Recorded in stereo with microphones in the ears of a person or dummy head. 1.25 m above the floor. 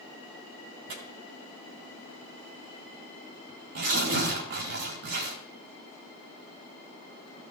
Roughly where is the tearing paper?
Right.